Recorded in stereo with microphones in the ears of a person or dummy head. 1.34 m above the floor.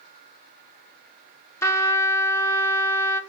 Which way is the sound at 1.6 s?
5° left (ahead or behind).